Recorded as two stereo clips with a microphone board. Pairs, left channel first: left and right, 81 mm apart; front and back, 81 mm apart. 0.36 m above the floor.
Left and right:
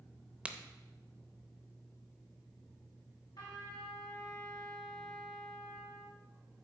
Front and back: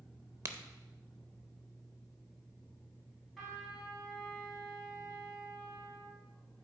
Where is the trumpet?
90° left, 2.5 m.